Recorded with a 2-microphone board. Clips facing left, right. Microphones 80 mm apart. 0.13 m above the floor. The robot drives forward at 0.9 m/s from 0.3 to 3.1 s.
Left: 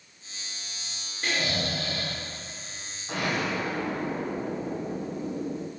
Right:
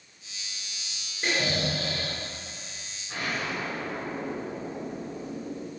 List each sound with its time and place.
1.2 s snoring: 20° right (ahead or behind), 1.7 m; by 2.2 s 15° right (ahead or behind), 2.5 m
3.1 s an explosion: 75° left (ahead or behind), 1.7 m